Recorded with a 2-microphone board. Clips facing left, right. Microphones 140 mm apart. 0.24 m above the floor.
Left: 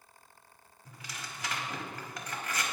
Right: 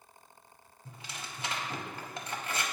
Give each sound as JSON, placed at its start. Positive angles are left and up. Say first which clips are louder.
{"t": 0.8, "sound": "tearing paper", "louder": "right 1 dB", "side_deg": -25, "distance_m": 0.7}